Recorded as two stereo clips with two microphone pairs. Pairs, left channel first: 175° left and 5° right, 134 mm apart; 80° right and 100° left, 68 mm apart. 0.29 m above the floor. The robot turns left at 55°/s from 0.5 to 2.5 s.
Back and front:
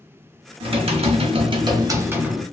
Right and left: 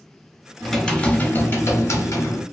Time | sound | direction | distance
0.6 | typing on a keyboard | 15° left | 0.7 m